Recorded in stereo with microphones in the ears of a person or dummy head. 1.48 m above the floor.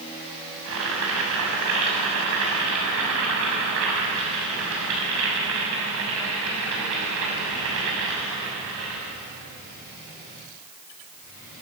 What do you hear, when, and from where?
0.7 s boiling: 75° right (ahead or behind), 6.5 m